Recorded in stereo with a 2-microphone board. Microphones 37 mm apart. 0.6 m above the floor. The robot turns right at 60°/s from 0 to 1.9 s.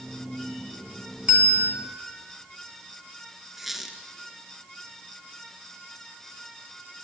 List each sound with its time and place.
1.3 s a bell: 30° right (ahead or behind), 4.5 m; by 1.7 s 55° right (ahead or behind), 4.5 m
3.6 s a squeak: 5° right (ahead or behind), 2 m